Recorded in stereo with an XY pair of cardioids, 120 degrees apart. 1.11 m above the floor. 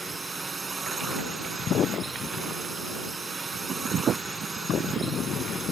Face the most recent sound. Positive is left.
turn(degrees=-25)